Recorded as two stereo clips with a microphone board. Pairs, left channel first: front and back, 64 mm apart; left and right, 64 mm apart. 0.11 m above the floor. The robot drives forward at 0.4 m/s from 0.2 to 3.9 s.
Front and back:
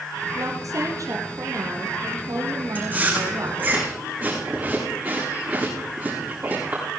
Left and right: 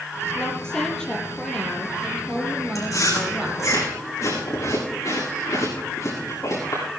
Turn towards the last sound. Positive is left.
turn(degrees=120)